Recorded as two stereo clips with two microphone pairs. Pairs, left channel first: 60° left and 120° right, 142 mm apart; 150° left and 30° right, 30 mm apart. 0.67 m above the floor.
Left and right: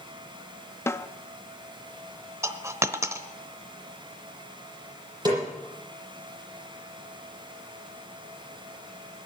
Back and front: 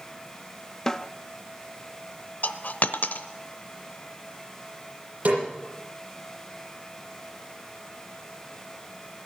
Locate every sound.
0.9 s a snare drum: 105° left, 0.6 m
2.4 s a dropped coin: 170° left, 0.7 m
5.2 s a snare drum: 55° right, 8 m